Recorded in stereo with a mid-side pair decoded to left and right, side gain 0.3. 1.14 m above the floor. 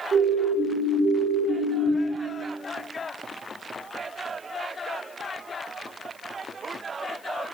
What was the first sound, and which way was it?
A siren, 70° right.